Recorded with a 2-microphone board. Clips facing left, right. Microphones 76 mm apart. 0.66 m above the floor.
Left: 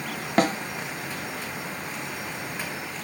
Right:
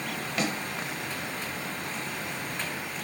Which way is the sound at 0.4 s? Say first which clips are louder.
Left 9 dB; 45° left (ahead or behind).